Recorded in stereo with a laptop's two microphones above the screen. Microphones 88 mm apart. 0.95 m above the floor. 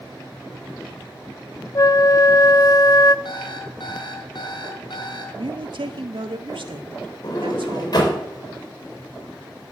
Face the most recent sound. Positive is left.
turn(degrees=55)  # may be behind; listen again after turning